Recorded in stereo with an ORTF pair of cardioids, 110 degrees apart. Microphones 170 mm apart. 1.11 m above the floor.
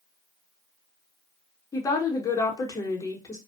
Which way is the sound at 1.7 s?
20° left.